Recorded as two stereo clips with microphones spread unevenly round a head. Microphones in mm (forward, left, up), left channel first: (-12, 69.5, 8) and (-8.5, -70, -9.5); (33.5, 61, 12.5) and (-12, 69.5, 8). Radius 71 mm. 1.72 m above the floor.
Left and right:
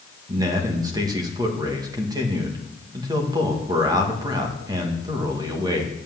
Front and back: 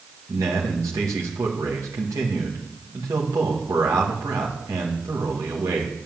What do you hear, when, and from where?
0.3 s a man speaking: 155° right, 1.6 m